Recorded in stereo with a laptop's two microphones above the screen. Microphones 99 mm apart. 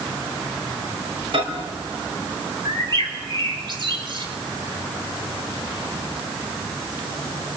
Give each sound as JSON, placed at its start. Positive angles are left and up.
{"t": 1.3, "sound": "a microwave", "side_deg": -60, "distance_m": 4.0}
{"t": 2.6, "sound": "a bird", "side_deg": -50, "distance_m": 5.0}